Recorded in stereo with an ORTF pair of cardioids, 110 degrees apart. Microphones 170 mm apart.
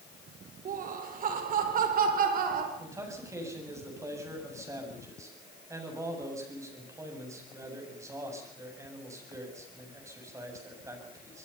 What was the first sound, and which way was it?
Laughter, 55° right.